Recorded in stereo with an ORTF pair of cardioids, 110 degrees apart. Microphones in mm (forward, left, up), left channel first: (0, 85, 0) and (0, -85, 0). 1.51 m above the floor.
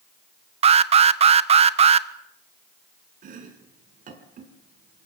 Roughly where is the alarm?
Ahead right.